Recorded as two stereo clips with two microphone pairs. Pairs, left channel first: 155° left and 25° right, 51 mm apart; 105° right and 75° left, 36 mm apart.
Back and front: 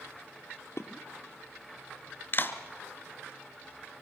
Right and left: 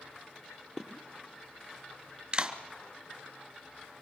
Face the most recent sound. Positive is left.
turn(degrees=135)